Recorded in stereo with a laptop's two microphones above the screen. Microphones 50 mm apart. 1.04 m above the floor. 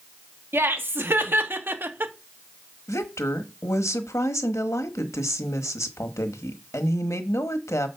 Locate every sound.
0.5 s laughter: 50° right (ahead or behind), 2.5 m; by 2.1 s 45° right (ahead or behind), 1.2 m
2.9 s a woman speaking: 80° left, 1.2 m